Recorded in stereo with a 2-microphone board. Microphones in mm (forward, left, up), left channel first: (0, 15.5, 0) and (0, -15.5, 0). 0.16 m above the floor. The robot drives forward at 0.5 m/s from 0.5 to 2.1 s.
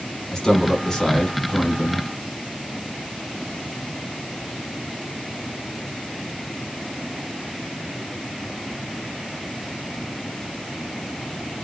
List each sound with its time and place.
0.3 s a man speaking: 20° left (ahead or behind), 1.2 m; by 2.1 s 15° left (ahead or behind), 1.5 m